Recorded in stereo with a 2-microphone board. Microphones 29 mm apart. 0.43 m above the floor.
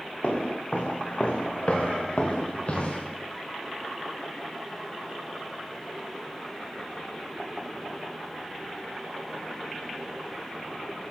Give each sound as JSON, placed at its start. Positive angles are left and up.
{"t": 0.2, "sound": "footsteps", "side_deg": 55, "distance_m": 8.0}